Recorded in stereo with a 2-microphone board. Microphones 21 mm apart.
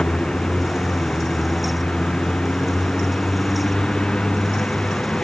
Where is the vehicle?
55° left (ahead or behind).